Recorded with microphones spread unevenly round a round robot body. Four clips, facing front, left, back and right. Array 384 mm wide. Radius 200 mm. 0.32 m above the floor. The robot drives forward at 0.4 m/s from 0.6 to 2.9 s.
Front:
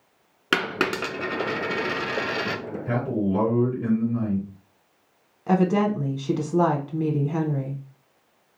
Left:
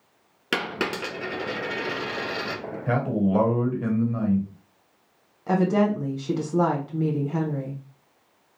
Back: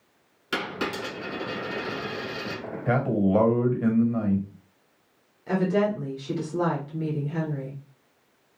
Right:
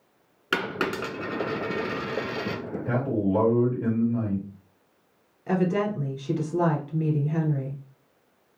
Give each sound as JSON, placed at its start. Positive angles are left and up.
{"t": 0.5, "sound": "a dropped coin", "azimuth_deg": 20, "distance_m": 1.3}
{"t": 2.9, "sound": "a man speaking", "azimuth_deg": 150, "distance_m": 1.6}
{"t": 5.5, "sound": "a woman speaking", "azimuth_deg": 10, "distance_m": 1.1}